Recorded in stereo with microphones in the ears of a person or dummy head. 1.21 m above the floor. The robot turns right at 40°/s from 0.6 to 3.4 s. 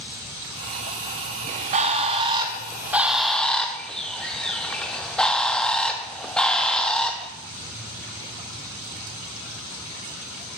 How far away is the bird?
About 0.6 m.